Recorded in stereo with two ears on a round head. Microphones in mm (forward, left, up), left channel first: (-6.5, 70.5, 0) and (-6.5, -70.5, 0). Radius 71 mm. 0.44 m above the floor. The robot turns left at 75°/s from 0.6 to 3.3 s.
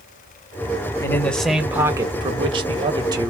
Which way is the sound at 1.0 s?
35° left.